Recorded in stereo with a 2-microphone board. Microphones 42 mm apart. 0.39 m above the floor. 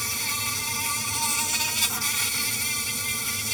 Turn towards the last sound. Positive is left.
turn(degrees=5)  # may be behind; listen again after turning